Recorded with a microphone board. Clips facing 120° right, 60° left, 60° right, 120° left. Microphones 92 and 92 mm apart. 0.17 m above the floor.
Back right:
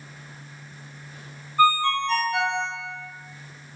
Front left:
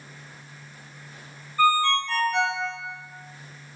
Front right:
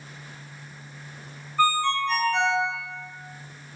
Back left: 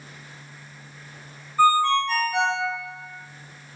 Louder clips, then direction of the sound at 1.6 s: Back right 1 dB, back left 4 dB; 165° right.